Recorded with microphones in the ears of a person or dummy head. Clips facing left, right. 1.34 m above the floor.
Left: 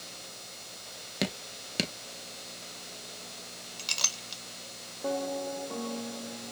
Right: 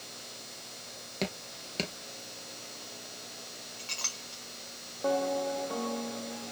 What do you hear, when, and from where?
1.2 s dripping: 15° left (ahead or behind), 0.7 m
3.8 s a clink: 60° left (ahead or behind), 0.7 m